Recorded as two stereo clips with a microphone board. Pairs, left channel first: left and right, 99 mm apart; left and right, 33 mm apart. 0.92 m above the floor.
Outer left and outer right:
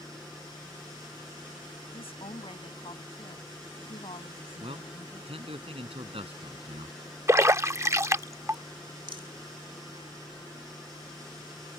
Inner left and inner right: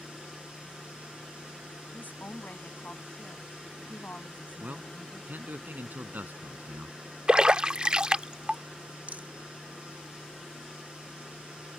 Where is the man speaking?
70° right (ahead or behind).